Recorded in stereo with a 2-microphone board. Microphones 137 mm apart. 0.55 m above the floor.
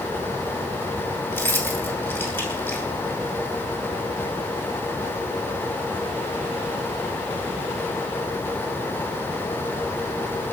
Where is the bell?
I don't hear a bell.